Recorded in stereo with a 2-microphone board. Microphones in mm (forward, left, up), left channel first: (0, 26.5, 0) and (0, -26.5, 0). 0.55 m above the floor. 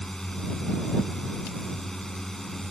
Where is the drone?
10° left (ahead or behind).